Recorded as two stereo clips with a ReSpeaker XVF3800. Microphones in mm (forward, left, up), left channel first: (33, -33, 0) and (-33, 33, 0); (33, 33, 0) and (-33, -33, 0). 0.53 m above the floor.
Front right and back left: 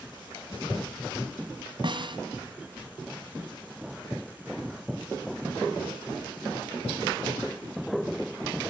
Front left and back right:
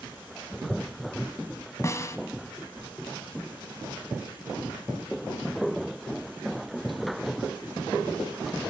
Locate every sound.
1.8 s a snare drum: 105° left, 2 m